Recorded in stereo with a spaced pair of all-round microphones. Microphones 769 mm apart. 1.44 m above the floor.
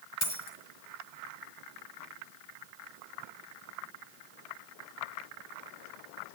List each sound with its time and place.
0.2 s a dropped coin: 75° left (ahead or behind), 4 m